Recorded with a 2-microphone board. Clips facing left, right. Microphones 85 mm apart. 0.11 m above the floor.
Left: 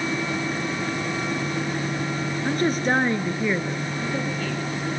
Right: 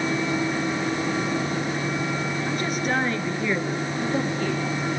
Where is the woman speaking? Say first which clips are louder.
Left 6 dB; 45° left (ahead or behind), 2 m; by 4.6 s 15° right (ahead or behind), 3 m.